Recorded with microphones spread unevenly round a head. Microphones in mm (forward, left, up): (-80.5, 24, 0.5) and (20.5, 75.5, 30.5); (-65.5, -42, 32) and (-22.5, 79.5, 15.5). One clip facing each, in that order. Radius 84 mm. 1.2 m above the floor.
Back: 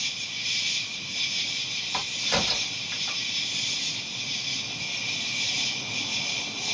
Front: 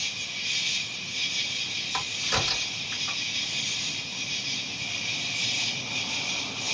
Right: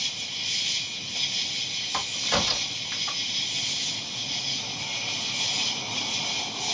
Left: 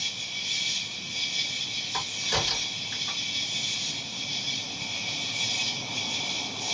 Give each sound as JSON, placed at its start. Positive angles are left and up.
{"t": 0.0, "sound": "an insect", "azimuth_deg": -100, "distance_m": 2.0}
{"t": 1.9, "sound": "a crack", "azimuth_deg": -95, "distance_m": 2.0}